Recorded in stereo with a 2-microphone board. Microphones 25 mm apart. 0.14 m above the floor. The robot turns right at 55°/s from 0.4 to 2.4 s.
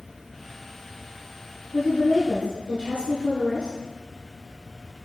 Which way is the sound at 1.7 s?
15° left.